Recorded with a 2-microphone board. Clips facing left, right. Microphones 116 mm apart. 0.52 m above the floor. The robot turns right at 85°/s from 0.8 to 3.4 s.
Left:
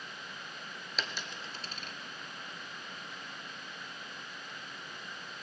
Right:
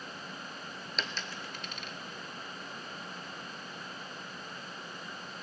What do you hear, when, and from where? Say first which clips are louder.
1.0 s a dropped coin: right 1 dB; centre (ahead or behind), 0.6 m; by 1.9 s 45° left (ahead or behind), 0.6 m